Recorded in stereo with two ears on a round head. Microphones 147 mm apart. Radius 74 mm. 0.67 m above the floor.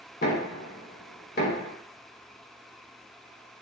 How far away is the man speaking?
I don't hear a man speaking.